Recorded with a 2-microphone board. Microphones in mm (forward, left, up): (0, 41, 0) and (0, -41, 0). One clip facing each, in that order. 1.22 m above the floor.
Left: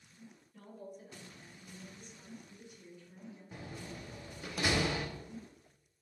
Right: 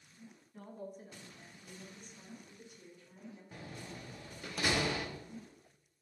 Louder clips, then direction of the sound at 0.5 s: Right 2 dB; 30° right (ahead or behind).